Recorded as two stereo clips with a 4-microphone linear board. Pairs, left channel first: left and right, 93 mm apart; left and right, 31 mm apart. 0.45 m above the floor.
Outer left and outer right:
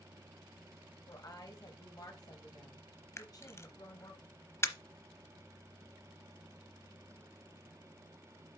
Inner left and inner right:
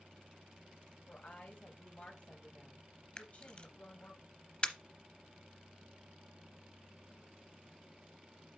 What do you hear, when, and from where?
1.1 s a woman speaking: 45° left (ahead or behind), 3 m
3.2 s a camera shutter: 30° left (ahead or behind), 0.7 m